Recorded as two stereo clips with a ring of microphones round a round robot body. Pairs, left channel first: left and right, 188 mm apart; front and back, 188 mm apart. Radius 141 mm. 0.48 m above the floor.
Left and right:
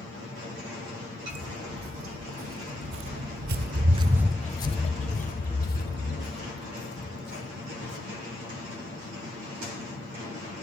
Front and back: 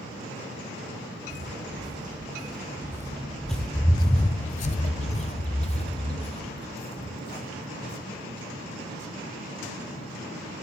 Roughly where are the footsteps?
Right.